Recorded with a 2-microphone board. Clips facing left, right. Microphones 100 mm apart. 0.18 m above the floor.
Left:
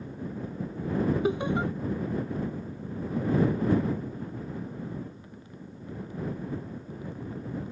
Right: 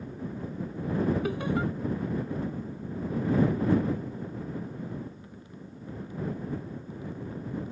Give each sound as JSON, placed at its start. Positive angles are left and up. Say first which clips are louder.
{"t": 1.2, "sound": "laughter", "louder": "left 2 dB", "side_deg": 20}